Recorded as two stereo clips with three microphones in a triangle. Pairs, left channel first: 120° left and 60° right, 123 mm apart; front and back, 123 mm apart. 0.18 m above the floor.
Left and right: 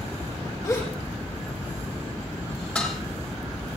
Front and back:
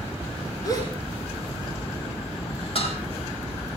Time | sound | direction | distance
0.6 | a gasp | 60° left | 6 m
2.8 | dishes clattering | 40° left | 3.5 m